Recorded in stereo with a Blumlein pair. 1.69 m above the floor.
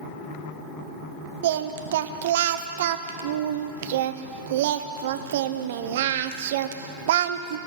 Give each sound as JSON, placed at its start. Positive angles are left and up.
{"t": 1.4, "sound": "singing", "azimuth_deg": -55, "distance_m": 0.6}